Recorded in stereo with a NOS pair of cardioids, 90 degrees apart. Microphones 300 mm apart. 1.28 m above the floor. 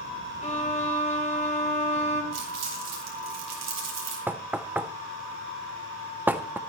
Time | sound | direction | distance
0.4 | a violin | 25° left | 3 m
2.3 | crumpling | 55° right | 4.5 m
4.3 | knocking | 5° right | 0.9 m